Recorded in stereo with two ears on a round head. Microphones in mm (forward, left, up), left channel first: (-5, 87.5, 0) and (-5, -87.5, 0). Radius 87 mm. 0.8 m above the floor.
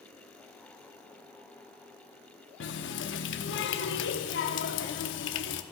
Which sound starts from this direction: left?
A running tap, at 2.6 s.